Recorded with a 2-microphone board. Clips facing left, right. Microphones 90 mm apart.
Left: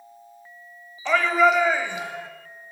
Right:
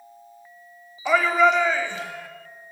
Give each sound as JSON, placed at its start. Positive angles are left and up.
{"t": 1.1, "sound": "a shout", "side_deg": -10, "distance_m": 1.0}